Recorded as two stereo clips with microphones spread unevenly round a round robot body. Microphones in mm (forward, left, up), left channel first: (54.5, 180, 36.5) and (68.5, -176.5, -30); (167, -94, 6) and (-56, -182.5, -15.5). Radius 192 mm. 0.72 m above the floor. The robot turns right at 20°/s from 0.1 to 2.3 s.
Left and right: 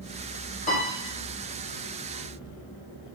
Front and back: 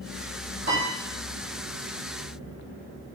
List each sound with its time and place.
0.7 s a piano: 165° left, 1.6 m; by 0.9 s 170° left, 1.6 m